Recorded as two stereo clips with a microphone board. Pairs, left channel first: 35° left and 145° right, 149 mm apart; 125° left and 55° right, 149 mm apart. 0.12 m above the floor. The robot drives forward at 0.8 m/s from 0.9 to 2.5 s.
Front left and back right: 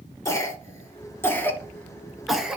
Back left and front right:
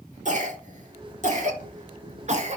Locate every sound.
0.2 s a cough: 35° right, 2.5 m; by 2.6 s 60° right, 2.0 m